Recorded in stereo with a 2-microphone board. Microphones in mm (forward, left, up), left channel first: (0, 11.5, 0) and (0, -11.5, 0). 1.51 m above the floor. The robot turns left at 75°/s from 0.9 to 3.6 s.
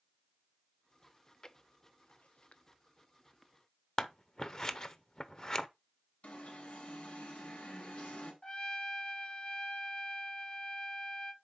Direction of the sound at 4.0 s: 30° left (ahead or behind).